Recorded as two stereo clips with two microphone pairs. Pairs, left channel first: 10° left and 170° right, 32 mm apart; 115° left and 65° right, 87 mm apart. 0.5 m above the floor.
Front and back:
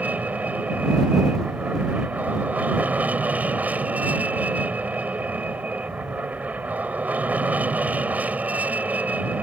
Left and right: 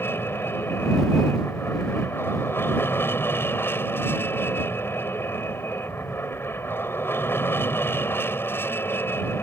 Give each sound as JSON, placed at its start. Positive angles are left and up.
{"t": 0.0, "sound": "an aircraft", "azimuth_deg": 175}